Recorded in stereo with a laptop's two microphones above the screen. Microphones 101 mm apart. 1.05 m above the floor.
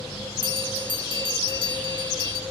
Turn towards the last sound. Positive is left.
turn(degrees=-50)  # may be behind; listen again after turning